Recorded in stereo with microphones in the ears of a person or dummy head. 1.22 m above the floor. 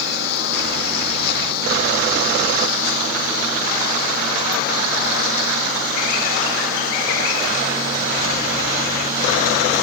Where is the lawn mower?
65° left (ahead or behind); by 9.8 s 50° left (ahead or behind).